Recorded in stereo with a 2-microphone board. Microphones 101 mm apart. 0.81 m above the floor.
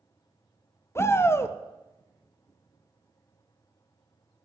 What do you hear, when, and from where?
0.9 s a shout: 25° left (ahead or behind), 0.5 m